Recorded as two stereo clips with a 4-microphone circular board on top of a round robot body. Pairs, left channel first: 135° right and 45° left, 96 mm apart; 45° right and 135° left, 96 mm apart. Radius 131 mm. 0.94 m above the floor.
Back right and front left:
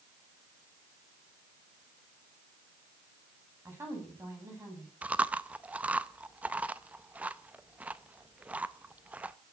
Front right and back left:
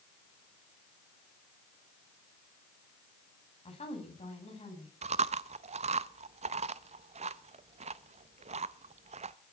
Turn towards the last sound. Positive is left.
turn(degrees=125)